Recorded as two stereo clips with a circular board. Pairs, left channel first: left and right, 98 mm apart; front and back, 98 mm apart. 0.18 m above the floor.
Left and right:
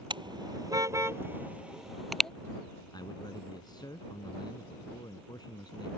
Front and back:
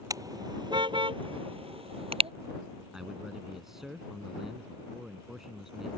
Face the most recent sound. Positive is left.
turn(degrees=95)